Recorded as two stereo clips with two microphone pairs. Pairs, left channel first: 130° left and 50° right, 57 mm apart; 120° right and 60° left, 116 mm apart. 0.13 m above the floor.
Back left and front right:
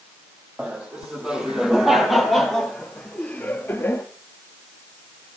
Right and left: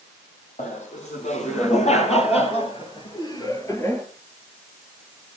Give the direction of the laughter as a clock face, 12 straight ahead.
4 o'clock.